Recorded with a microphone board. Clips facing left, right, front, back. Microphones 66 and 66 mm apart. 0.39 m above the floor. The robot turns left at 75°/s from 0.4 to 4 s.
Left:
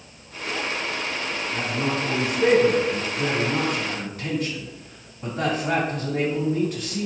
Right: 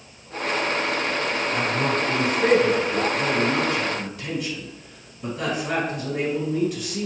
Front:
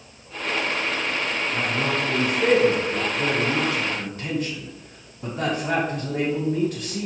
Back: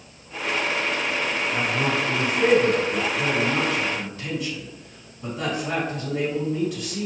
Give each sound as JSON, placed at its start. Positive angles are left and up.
{"t": 1.5, "sound": "a man speaking", "azimuth_deg": -125, "distance_m": 2.0}